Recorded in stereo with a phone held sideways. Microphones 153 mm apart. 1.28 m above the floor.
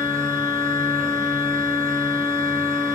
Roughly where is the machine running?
Centre.